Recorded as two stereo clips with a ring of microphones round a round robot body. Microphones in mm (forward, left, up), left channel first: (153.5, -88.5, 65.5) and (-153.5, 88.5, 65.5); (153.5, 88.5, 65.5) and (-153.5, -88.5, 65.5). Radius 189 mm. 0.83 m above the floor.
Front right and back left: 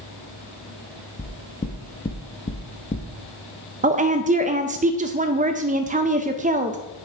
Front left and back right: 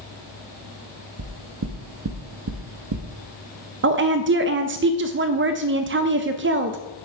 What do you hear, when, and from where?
1.2 s knocking: 100° right, 0.9 m
3.8 s a woman speaking: 160° right, 0.6 m